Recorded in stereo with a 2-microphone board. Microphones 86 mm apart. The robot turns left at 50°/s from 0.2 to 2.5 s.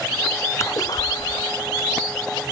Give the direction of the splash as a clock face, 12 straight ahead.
7 o'clock.